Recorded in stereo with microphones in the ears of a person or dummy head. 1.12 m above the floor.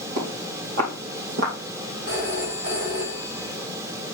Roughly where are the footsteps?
Right.